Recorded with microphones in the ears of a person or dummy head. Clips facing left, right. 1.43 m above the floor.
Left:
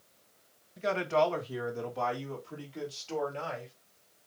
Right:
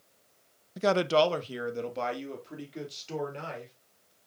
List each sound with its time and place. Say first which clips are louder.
0.8 s a man speaking: right 4 dB; 70° right (ahead or behind), 0.6 m; by 3.7 s 20° right (ahead or behind), 4.5 m